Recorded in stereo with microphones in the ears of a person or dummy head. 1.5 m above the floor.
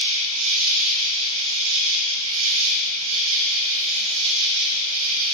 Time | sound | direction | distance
0.0 | an insect | 65° right (ahead or behind) | 1.0 m